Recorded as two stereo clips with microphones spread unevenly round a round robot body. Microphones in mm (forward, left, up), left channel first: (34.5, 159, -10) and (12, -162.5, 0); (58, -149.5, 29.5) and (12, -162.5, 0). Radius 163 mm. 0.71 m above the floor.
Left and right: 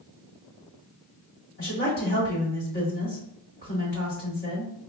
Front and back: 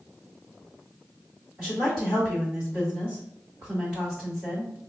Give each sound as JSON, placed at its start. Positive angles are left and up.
{"t": 1.6, "sound": "a woman speaking", "azimuth_deg": 140, "distance_m": 1.7}